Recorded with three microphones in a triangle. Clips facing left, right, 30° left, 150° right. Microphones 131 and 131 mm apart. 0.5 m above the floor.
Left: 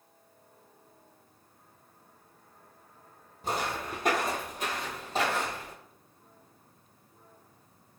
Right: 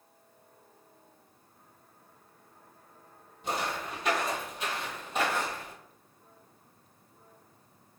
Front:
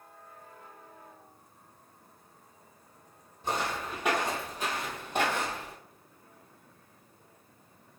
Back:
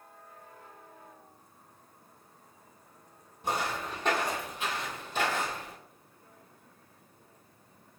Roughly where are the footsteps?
Behind left.